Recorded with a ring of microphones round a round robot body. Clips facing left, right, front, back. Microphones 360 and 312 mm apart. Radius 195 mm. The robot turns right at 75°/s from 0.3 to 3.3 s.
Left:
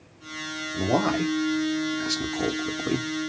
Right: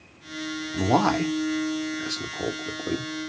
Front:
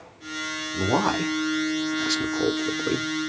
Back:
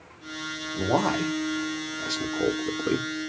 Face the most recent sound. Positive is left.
turn(degrees=125)